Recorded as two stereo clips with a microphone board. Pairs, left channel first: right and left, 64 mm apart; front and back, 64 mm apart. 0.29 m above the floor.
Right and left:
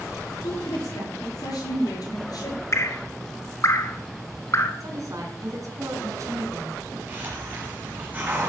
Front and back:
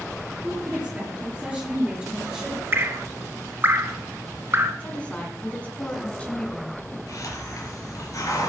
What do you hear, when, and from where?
0.4 s a woman speaking: 115° right, 7 m; by 2.6 s 105° right, 5.5 m
2.7 s dripping: 130° right, 0.9 m
4.8 s a woman speaking: 65° left, 3.5 m
7.1 s a hiss: 30° left, 3.5 m